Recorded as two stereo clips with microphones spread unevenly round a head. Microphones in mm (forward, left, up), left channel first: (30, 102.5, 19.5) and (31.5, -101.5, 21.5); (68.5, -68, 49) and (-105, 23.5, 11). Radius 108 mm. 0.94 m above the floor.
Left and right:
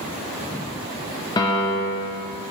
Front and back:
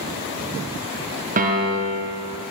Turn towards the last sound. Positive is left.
turn(degrees=155)